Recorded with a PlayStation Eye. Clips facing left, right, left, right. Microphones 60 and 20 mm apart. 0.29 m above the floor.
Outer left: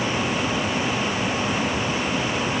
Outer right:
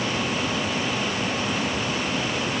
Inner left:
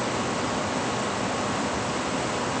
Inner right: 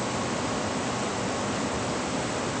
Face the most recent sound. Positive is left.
No sound to turn to.